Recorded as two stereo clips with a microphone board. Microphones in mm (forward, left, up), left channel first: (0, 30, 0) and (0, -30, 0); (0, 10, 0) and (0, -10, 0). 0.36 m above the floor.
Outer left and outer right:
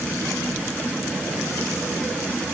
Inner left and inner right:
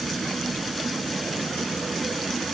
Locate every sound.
Only background noise.